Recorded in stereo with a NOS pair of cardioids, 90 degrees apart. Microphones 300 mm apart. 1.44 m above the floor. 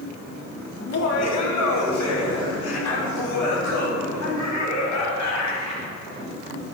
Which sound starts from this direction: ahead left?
Laughter, at 0.8 s.